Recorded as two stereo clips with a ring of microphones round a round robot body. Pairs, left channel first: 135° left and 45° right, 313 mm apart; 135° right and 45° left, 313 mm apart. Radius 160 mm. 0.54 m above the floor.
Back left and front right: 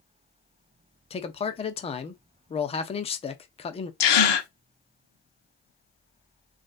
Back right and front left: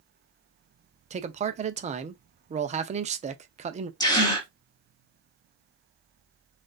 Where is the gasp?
145° left, 1.1 m.